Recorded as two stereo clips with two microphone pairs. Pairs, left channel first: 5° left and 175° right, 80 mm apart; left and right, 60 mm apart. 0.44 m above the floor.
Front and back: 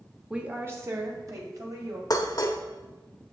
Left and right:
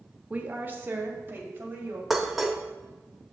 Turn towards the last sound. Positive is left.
turn(degrees=-5)